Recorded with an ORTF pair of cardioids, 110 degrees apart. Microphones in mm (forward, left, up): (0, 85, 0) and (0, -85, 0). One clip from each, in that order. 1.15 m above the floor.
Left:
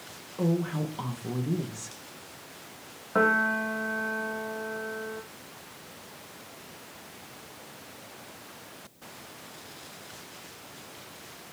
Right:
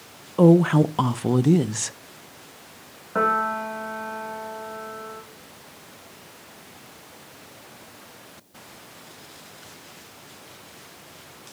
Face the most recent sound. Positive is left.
turn(degrees=5)